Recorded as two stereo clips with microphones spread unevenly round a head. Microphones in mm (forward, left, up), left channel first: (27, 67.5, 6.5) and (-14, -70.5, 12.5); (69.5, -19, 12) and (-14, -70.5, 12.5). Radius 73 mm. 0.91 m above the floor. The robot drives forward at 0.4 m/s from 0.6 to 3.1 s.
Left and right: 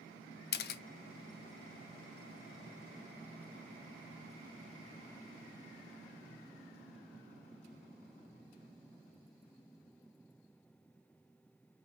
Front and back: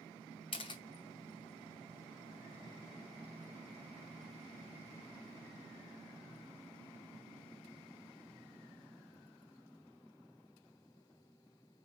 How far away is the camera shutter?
About 0.7 m.